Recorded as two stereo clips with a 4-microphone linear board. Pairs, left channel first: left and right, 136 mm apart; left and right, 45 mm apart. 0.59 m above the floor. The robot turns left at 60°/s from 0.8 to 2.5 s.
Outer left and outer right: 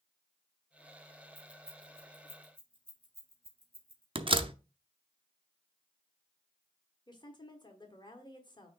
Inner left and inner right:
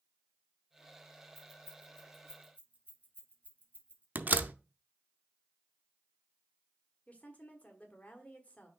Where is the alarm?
I don't hear an alarm.